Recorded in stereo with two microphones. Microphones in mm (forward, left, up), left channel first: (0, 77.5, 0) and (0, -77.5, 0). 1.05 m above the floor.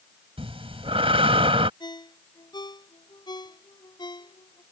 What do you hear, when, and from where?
0.4 s breathing: 40° right (ahead or behind)
1.8 s a ringtone: 30° left (ahead or behind)